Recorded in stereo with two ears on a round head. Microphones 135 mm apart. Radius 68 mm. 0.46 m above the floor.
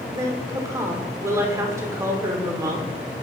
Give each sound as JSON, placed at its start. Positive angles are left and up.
{"t": 0.1, "sound": "a woman speaking", "side_deg": -20, "distance_m": 1.1}